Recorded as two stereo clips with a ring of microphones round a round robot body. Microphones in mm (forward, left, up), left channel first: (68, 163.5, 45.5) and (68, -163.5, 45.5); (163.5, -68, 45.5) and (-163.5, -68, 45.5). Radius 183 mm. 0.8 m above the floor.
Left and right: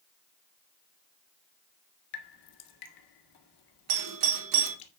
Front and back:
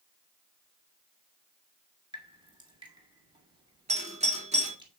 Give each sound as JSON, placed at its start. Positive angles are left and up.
{"t": 2.1, "sound": "dripping", "azimuth_deg": 105, "distance_m": 1.8}
{"t": 3.9, "sound": "a doorbell", "azimuth_deg": -110, "distance_m": 3.0}